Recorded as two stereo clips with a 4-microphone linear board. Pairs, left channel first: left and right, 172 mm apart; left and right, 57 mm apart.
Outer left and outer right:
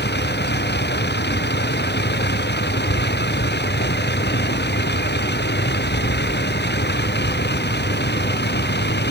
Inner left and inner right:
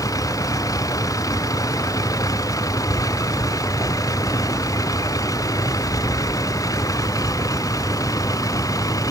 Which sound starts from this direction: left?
A vehicle, at 0.0 s.